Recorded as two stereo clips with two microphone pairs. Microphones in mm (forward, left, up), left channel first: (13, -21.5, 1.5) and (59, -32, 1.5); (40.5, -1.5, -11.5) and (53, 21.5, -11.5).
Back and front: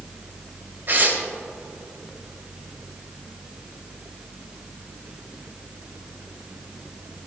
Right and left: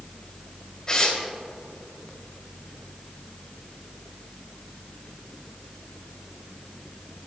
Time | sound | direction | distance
0.9 | tearing paper | 55° right | 2 m